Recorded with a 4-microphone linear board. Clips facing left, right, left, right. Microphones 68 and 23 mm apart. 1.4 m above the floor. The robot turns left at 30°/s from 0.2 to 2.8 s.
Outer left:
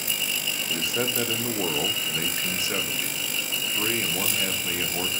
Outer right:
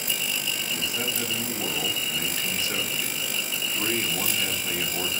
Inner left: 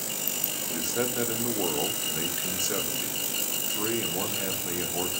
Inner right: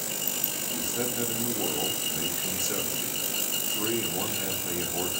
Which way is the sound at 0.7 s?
80° left.